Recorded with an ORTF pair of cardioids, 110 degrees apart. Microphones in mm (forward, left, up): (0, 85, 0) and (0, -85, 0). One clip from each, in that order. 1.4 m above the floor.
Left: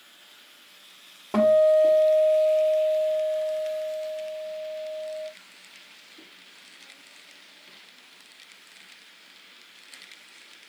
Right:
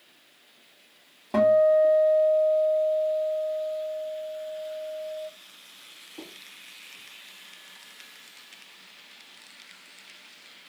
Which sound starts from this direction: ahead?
A guitar, at 1.3 s.